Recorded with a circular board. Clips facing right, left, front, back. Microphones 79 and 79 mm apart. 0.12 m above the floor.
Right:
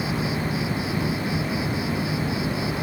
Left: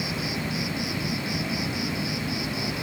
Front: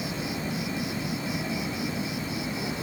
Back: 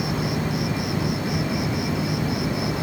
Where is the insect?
150° right.